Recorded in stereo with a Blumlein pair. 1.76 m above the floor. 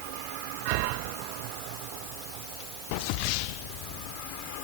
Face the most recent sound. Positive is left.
No sound to turn to.